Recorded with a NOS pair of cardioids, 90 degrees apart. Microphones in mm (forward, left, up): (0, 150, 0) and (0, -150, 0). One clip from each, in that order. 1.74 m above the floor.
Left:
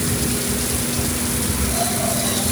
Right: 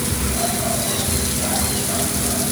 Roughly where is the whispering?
I don't hear whispering.